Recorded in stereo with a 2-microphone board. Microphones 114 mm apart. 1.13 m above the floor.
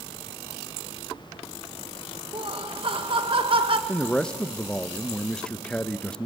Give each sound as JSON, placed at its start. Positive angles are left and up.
{"t": 2.3, "sound": "laughter", "side_deg": -50, "distance_m": 1.3}
{"t": 3.9, "sound": "a man speaking", "side_deg": 5, "distance_m": 0.7}